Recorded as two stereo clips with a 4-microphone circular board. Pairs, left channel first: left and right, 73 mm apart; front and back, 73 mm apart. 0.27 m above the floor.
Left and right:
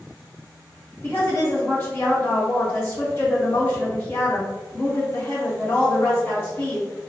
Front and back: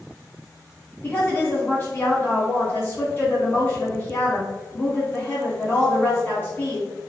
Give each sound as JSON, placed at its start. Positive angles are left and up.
{"t": 1.0, "sound": "a woman speaking", "azimuth_deg": 45, "distance_m": 1.8}